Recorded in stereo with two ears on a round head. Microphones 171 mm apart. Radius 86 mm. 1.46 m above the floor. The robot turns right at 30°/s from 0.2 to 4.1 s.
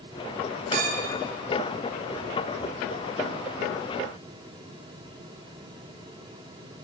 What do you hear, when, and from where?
0.7 s a clink: 40° right (ahead or behind), 1.0 m; by 1.1 s 30° right (ahead or behind), 1.0 m